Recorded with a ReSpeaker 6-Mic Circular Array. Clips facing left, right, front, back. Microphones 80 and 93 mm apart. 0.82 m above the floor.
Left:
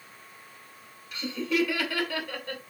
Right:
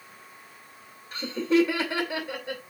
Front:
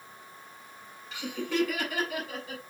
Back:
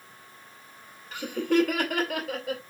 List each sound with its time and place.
1.1 s laughter: 140° right, 2.5 m; by 2.6 s 170° right, 2.5 m